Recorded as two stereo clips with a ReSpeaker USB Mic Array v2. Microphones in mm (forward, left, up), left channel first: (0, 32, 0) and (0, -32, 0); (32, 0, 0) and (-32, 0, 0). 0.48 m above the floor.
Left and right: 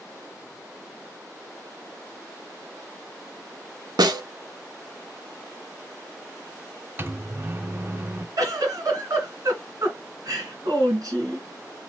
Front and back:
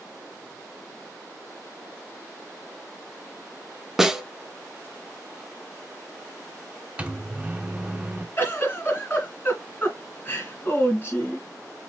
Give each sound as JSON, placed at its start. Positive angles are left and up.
{"t": 4.0, "sound": "a snare drum", "azimuth_deg": -100, "distance_m": 0.6}
{"t": 7.0, "sound": "a microwave", "azimuth_deg": -120, "distance_m": 0.5}
{"t": 8.4, "sound": "a giggle", "azimuth_deg": -60, "distance_m": 2.5}